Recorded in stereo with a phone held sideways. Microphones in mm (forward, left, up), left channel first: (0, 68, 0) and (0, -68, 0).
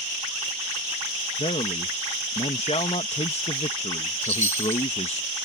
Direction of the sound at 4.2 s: 80° right.